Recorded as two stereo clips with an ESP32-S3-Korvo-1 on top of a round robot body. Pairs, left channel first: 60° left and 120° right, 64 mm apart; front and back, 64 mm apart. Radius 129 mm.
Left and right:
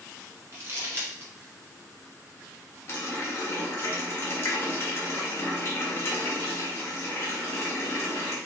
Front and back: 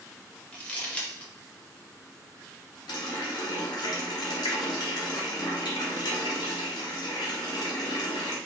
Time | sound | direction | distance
0.5 | crumpling | 70° right | 1.1 m
2.9 | a running tap | 5° left | 0.7 m